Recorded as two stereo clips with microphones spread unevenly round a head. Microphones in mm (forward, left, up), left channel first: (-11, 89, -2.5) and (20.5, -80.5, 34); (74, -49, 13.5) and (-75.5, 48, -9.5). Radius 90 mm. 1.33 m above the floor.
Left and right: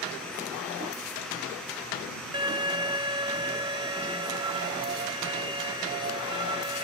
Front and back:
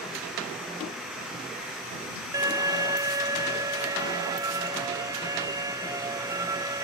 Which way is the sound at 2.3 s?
140° right.